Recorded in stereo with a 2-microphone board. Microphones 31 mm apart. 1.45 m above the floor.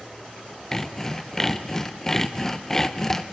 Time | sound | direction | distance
0.7 | sawing | 15° left (ahead or behind) | 0.6 m